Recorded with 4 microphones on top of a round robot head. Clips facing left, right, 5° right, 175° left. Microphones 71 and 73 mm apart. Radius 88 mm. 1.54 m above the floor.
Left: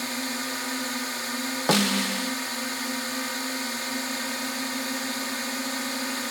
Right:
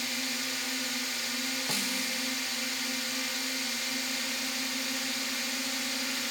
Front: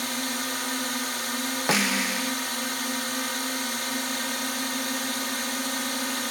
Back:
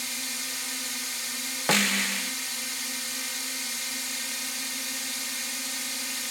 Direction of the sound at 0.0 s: 35° left.